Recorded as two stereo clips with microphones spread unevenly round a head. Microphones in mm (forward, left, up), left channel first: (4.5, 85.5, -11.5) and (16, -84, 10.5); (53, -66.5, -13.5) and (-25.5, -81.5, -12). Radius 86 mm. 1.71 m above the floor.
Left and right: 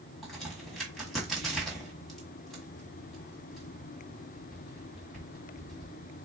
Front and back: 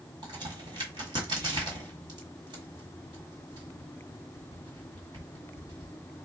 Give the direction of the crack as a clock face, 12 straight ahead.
6 o'clock.